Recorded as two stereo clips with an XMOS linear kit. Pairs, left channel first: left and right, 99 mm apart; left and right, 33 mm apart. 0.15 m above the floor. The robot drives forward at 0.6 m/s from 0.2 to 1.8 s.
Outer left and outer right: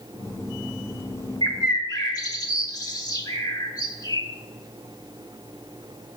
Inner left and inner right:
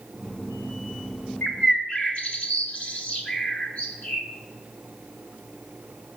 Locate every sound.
1.4 s a bird: 40° left (ahead or behind), 0.8 m; by 4.3 s 45° left (ahead or behind), 0.8 m